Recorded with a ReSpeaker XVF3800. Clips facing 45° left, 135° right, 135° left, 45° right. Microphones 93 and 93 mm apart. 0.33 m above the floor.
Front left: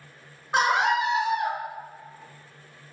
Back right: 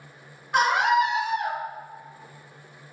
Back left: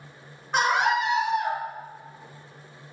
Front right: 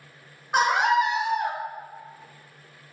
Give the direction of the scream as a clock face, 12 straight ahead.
11 o'clock.